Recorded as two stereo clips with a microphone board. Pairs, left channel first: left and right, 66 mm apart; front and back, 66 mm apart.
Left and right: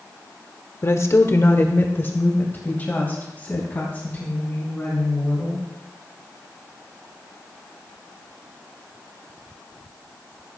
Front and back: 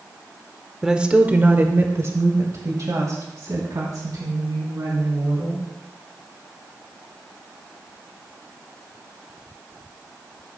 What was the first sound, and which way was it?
A woman speaking, 100° left.